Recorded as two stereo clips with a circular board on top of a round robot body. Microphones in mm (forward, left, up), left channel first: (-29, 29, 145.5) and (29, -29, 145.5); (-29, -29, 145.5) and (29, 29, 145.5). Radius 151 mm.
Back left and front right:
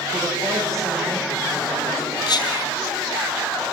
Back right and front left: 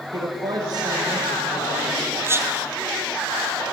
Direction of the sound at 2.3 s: 105° left.